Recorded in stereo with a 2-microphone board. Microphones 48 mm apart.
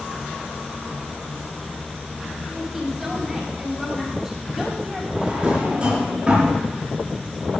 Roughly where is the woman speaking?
Centre.